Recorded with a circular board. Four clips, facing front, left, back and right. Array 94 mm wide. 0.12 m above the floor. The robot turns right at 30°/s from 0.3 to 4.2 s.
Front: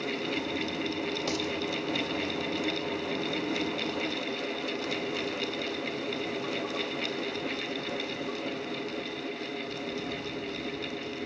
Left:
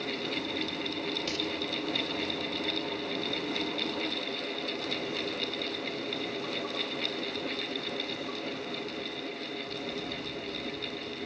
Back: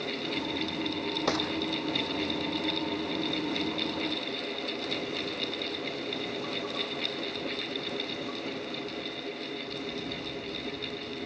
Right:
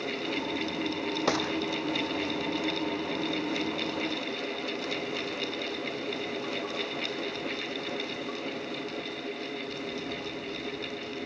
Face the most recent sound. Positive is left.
turn(degrees=-30)